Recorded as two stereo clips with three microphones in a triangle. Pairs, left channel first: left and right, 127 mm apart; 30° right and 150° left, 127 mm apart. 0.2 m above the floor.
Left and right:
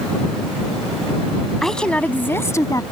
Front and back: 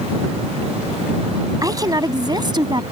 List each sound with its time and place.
1.6 s a woman speaking: 175° left; by 2.8 s 130° left